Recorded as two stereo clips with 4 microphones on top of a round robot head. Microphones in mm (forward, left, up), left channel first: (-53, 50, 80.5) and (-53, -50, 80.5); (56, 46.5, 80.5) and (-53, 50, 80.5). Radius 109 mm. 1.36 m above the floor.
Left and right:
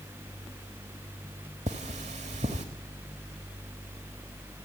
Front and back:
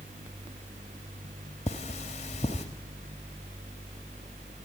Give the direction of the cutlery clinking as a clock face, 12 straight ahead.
2 o'clock.